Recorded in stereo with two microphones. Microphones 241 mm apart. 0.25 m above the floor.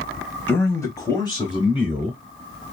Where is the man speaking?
10° left (ahead or behind), 1.0 m; by 2.2 s 20° left (ahead or behind), 1.3 m.